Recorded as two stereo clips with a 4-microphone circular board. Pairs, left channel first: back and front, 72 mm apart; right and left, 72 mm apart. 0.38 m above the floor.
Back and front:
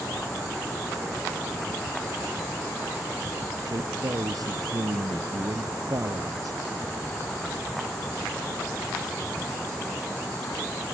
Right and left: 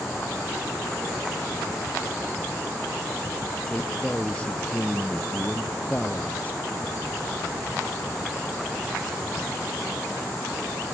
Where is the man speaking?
15° right; by 6.6 s 20° right.